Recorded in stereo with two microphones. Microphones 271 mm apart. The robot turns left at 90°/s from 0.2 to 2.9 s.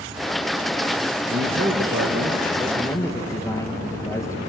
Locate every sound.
1.3 s a man speaking: 50° right, 2.5 m; by 4.4 s 165° left, 2.5 m